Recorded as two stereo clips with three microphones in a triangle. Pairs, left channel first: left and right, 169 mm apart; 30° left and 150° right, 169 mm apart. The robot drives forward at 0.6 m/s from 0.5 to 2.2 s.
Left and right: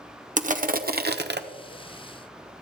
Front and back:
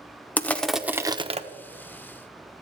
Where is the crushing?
50° right, 0.8 m; by 1.4 s 100° right, 0.6 m.